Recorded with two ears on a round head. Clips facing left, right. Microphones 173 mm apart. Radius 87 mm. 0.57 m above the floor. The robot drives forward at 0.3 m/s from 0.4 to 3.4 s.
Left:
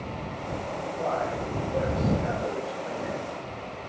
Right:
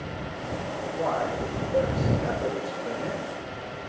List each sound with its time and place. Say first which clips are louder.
0.8 s a man speaking: right 2 dB; 45° right (ahead or behind), 9 m